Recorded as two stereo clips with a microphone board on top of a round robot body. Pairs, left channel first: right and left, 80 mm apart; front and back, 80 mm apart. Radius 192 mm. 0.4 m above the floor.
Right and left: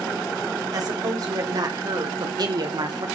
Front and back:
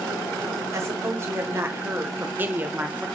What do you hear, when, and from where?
0.7 s a woman speaking: 130° left, 3.5 m; by 3.1 s 110° left, 2.5 m